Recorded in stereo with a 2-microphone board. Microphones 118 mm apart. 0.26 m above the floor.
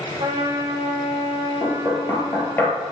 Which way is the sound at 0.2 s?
40° right (ahead or behind).